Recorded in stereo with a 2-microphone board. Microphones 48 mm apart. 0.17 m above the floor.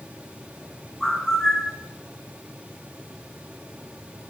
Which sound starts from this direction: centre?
A bird, at 1.0 s.